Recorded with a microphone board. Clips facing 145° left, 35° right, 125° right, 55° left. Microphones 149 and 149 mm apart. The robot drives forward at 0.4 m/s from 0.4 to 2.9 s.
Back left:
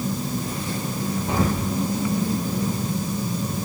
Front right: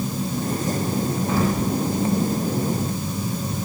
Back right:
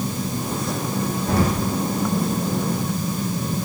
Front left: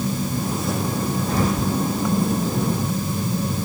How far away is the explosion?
About 3 m.